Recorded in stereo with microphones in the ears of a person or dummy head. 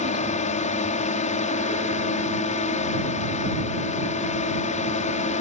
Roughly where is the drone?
Left.